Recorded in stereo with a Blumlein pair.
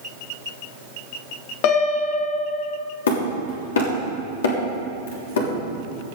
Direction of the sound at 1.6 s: 45° left.